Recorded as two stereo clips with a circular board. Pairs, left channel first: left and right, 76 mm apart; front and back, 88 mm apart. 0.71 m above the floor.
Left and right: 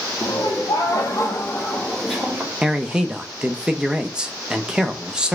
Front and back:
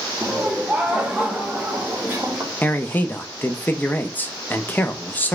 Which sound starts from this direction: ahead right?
A man speaking, at 2.6 s.